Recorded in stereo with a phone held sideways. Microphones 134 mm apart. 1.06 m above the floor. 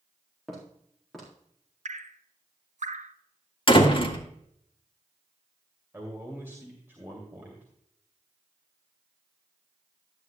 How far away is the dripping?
About 0.6 m.